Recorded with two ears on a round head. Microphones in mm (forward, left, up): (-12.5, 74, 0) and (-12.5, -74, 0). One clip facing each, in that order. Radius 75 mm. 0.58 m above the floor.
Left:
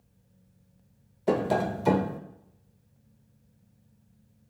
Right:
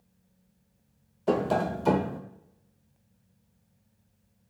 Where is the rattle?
I don't hear a rattle.